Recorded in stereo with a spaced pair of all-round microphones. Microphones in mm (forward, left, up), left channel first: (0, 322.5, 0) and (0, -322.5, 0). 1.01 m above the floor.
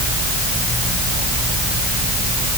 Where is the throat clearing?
I don't hear throat clearing.